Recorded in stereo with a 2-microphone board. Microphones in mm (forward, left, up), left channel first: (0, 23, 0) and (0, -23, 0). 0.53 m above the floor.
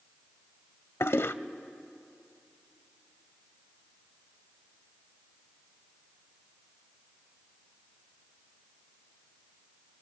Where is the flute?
I don't hear a flute.